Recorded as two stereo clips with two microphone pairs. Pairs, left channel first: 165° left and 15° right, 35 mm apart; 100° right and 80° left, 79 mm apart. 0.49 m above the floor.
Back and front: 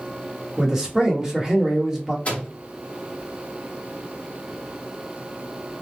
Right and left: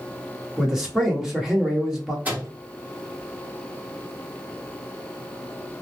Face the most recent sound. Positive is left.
turn(degrees=140)